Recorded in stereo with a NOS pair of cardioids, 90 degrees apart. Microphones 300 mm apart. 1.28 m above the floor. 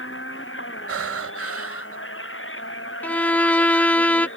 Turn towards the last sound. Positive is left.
turn(degrees=5)